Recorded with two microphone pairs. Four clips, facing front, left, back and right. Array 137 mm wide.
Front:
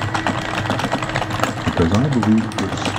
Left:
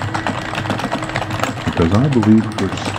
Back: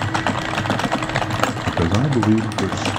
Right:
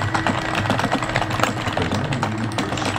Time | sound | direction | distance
1.7 | a man speaking | 60° left | 0.5 m